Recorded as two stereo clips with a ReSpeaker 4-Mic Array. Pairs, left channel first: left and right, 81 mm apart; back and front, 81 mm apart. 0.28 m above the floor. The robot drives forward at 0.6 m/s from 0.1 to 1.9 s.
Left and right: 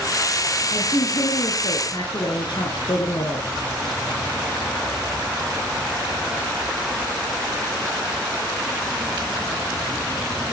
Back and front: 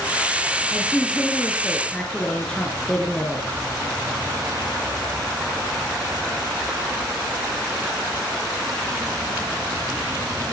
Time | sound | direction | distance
0.7 | a woman speaking | 90° left | 3.5 m